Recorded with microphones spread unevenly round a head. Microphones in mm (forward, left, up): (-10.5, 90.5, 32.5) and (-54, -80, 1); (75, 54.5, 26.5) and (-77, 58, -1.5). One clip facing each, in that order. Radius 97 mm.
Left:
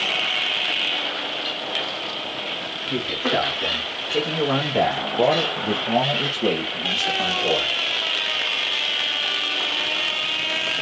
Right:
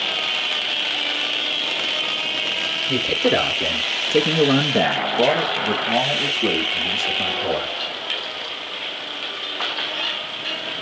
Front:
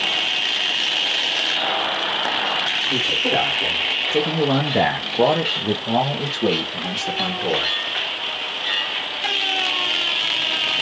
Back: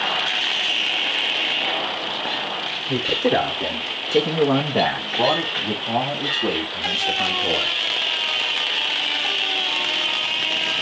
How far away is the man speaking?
About 1.1 m.